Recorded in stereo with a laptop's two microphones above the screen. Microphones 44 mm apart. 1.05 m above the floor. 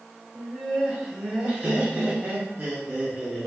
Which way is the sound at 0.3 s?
5° right (ahead or behind).